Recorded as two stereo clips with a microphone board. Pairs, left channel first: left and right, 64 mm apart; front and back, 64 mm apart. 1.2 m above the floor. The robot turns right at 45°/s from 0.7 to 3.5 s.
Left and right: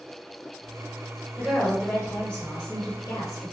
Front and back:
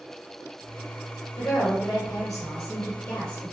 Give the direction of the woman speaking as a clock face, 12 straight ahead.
1 o'clock.